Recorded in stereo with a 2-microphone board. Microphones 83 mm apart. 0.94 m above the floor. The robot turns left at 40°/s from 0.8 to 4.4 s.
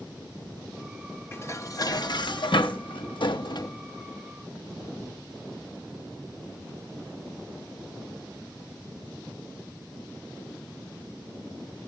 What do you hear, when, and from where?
1.3 s dishes clattering: 30° left (ahead or behind), 0.9 m; by 3.7 s 55° left (ahead or behind), 0.9 m